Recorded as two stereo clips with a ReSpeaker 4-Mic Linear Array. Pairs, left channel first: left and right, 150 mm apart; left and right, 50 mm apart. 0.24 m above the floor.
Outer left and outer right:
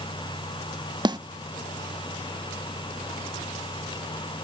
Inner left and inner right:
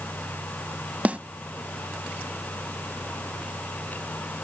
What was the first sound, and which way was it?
A snare drum, 30° right (ahead or behind).